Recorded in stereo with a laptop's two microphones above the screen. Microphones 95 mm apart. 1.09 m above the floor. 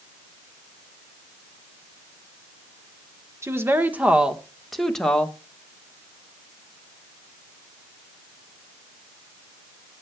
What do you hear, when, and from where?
3.4 s a woman speaking: 30° right (ahead or behind), 1.3 m; by 5.4 s 15° left (ahead or behind), 1.5 m